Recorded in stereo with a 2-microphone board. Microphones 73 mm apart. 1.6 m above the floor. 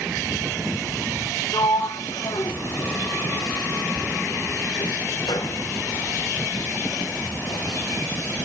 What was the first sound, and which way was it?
A sliding door, 75° left (ahead or behind).